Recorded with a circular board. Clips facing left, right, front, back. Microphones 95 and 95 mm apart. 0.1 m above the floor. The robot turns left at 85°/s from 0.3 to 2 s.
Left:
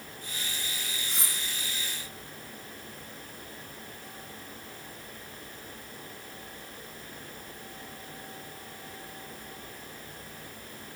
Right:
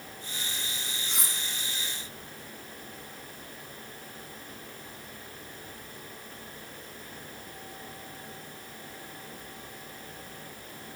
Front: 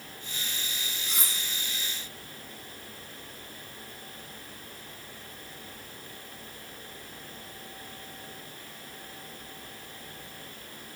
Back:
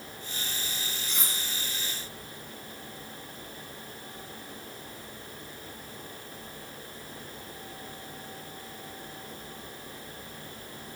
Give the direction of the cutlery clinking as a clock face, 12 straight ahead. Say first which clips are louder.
Right 1 dB, front 1 dB; 3 o'clock.